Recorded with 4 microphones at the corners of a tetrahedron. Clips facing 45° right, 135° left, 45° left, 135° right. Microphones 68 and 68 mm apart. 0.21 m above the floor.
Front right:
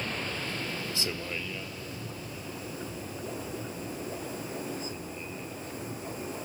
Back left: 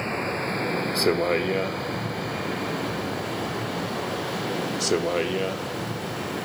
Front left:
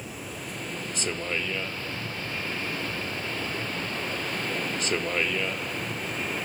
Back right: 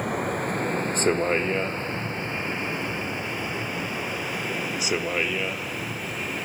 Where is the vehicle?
165° right; by 6.5 s 140° left.